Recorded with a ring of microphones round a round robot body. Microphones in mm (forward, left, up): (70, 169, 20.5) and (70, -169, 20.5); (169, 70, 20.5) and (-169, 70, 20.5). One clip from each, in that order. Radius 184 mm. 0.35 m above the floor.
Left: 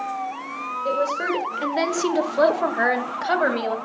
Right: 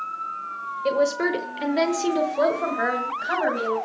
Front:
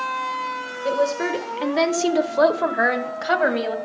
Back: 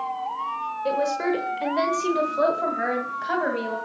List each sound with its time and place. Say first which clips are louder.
0.8 s a woman speaking: right 2 dB, front 3 dB; 100° right, 1.2 m; by 3.7 s 45° left, 2 m